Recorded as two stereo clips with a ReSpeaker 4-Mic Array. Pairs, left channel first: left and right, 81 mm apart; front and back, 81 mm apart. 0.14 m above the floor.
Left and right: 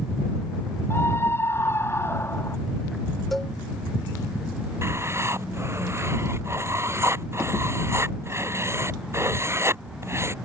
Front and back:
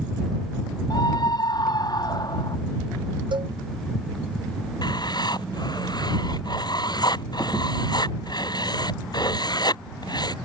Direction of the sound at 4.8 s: 30° right.